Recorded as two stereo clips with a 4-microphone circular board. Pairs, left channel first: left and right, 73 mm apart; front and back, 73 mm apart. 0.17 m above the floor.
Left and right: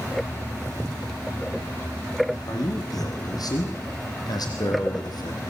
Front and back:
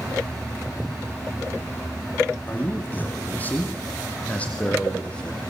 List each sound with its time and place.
2.5 s a man speaking: 65° left, 8 m; by 5.4 s 75° left, 7 m